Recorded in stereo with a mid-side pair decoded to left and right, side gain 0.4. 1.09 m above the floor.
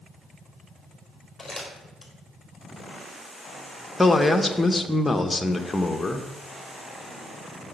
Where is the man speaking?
20° left, 1.1 m.